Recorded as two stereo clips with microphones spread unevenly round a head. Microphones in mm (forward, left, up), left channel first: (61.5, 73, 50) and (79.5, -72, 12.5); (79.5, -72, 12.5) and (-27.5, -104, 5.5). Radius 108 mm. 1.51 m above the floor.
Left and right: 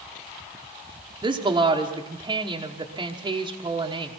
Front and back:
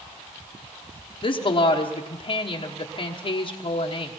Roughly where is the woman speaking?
Ahead right.